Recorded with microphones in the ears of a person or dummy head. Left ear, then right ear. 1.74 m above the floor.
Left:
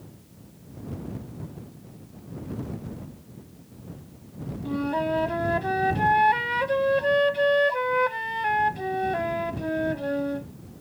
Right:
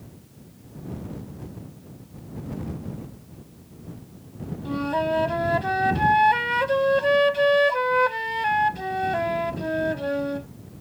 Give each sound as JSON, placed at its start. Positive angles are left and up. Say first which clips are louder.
{"t": 4.7, "sound": "a flute", "louder": "right 2 dB", "side_deg": -20}